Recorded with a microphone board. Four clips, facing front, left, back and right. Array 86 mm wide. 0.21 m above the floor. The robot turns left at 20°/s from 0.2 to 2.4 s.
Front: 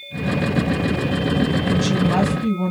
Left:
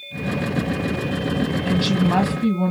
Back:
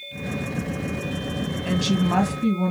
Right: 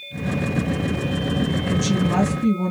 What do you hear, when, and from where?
1.6 s a woman speaking: 105° left, 1.2 m; by 2.7 s 90° left, 1.2 m